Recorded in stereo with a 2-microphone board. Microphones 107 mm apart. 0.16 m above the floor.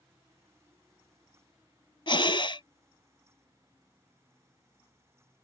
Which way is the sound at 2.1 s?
50° left (ahead or behind).